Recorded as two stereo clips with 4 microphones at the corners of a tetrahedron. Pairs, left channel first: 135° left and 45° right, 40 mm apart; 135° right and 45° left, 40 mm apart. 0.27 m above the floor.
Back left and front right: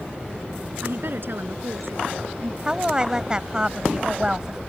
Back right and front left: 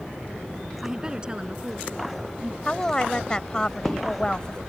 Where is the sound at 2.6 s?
90° right.